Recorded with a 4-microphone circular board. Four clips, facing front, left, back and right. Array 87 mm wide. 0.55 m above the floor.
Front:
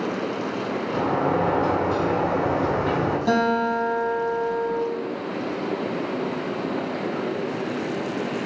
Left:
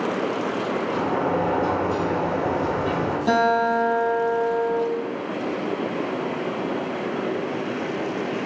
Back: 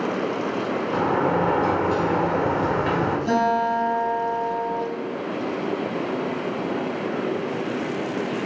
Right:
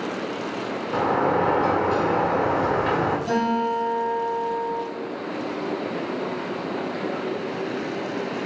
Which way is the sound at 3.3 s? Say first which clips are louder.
Left 3 dB, back 1 dB; 50° left.